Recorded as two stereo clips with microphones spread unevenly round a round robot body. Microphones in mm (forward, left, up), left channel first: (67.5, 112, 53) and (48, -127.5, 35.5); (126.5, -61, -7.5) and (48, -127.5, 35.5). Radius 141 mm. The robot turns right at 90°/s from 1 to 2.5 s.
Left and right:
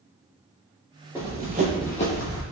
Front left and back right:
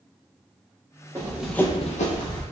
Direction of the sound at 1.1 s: Straight behind.